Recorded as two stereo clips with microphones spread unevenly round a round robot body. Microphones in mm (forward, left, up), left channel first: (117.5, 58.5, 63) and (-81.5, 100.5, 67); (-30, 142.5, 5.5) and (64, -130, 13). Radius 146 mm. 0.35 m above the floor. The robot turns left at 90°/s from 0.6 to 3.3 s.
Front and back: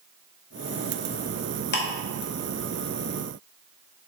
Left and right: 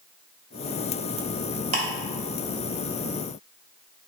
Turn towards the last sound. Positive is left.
turn(degrees=-145)